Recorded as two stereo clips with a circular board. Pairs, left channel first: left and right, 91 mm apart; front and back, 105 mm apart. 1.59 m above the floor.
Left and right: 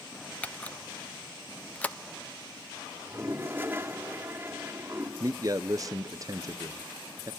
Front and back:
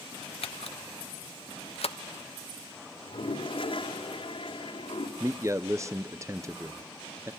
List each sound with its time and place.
0.4 s a camera shutter: 15° left, 1.0 m
3.0 s a toilet flushing: 25° right, 2.5 m
5.2 s a man speaking: 125° right, 0.5 m